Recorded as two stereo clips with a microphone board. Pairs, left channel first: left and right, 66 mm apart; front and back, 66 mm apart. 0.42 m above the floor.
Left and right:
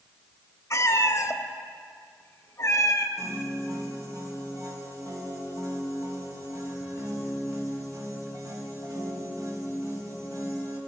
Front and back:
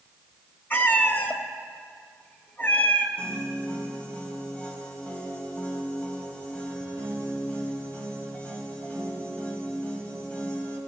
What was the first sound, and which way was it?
A cat meowing, 55° left.